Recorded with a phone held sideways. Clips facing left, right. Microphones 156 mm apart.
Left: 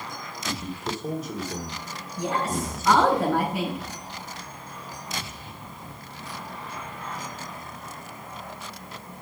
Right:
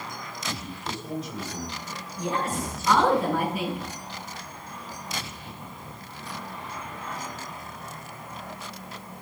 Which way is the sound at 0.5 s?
50° left (ahead or behind).